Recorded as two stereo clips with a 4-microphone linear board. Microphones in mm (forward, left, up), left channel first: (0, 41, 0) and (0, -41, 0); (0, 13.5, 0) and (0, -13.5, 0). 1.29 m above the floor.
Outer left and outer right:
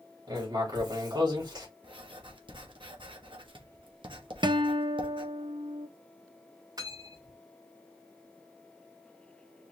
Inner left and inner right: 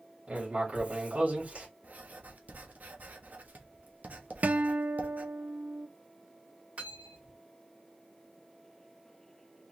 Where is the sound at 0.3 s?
55° right (ahead or behind), 2.5 m.